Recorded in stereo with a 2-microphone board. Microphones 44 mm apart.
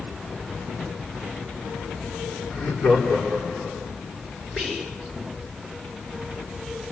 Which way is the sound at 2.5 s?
45° left (ahead or behind).